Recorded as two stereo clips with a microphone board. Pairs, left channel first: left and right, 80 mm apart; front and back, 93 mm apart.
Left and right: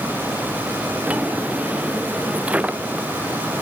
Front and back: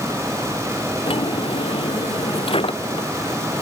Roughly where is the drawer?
Ahead.